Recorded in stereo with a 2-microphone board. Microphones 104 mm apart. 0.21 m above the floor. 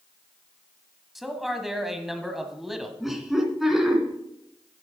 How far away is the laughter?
About 2.5 m.